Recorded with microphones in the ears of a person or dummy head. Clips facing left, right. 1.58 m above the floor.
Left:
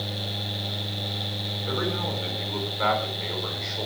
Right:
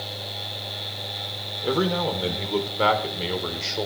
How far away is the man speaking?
About 5 m.